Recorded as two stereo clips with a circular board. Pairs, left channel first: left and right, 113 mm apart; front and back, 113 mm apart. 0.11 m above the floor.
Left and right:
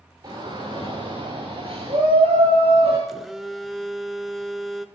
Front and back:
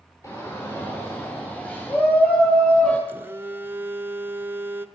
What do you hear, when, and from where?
0.2 s a shout: 50° right, 2.5 m; by 3.0 s 75° right, 3.5 m
3.1 s a phone buzzing: straight behind, 0.6 m